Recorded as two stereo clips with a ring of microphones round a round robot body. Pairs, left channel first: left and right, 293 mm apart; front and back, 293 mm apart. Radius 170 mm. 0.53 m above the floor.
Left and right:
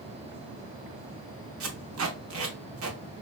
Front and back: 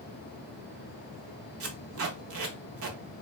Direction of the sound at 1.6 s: 135° right.